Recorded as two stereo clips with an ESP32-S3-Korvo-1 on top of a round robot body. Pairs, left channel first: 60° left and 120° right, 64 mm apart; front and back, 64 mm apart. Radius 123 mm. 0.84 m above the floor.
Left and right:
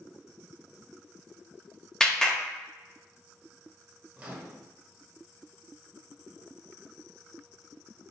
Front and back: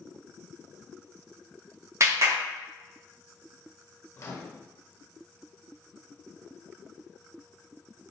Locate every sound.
2.0 s a clap: 140° left, 1.0 m
4.2 s a microwave: 55° right, 0.7 m